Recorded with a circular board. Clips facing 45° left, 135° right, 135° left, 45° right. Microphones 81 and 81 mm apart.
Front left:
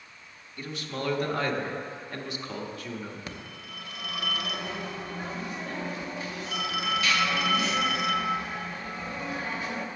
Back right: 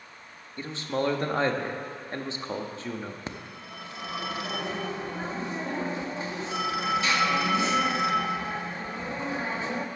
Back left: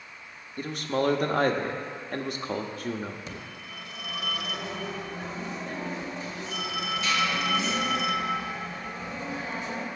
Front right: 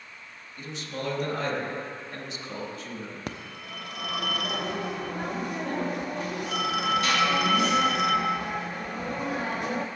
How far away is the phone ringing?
About 0.7 m.